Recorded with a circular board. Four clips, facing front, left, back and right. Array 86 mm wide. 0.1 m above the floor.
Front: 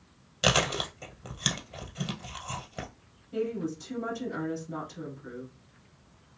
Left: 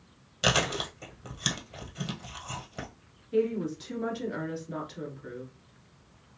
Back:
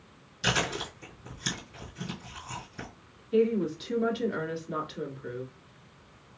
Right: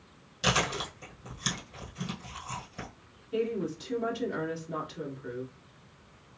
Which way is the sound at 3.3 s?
175° left.